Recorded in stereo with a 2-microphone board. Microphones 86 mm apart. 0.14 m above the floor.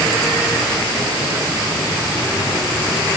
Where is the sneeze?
I don't hear a sneeze.